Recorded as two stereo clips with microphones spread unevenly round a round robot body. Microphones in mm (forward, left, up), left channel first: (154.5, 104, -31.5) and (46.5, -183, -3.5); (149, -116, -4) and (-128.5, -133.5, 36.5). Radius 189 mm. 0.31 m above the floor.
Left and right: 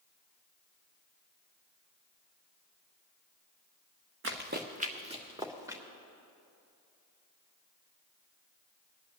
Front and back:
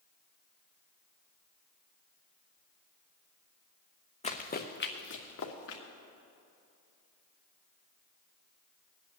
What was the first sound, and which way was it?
Running footsteps, 65° right.